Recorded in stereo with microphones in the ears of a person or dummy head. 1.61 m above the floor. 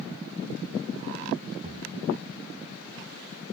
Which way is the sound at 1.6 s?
30° right (ahead or behind).